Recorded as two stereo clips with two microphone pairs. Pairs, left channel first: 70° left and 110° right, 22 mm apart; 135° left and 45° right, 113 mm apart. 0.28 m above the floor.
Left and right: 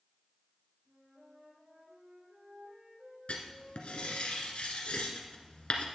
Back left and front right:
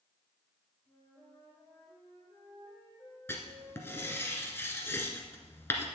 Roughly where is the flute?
Behind right.